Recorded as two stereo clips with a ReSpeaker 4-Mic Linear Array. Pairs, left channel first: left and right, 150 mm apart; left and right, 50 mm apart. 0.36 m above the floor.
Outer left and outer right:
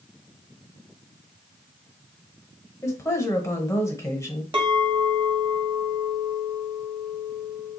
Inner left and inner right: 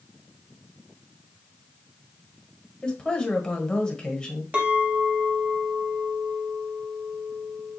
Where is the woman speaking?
20° left (ahead or behind), 1.4 m.